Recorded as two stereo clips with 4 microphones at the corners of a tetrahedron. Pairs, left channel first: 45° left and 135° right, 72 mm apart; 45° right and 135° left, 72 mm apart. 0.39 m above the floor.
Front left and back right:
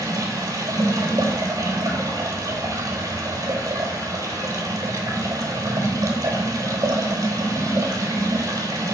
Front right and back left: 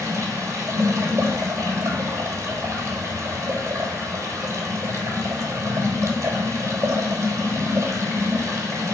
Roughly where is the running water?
Behind.